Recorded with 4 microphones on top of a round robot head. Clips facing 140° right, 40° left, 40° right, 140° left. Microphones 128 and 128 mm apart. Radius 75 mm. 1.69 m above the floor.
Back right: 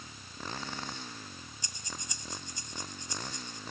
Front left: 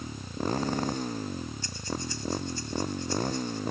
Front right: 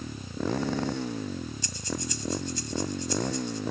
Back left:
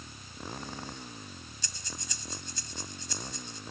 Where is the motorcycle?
10° right.